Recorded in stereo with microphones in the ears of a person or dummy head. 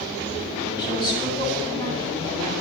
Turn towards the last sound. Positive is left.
turn(degrees=20)  # may be behind; listen again after turning